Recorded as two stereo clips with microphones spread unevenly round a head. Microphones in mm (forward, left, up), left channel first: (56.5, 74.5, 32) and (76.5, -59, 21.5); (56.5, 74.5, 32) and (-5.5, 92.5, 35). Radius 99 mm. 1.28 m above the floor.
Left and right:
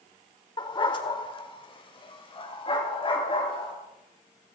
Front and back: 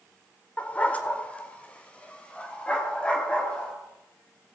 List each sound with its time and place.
0.6 s a dog barking: 50° left, 1.9 m; by 3.7 s 55° left, 4.5 m